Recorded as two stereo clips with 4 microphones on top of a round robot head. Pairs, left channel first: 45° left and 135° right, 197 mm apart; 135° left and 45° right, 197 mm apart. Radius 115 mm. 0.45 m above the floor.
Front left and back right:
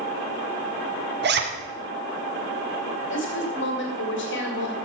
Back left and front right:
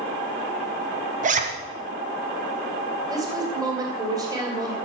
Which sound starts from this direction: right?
A zipper, at 1.2 s.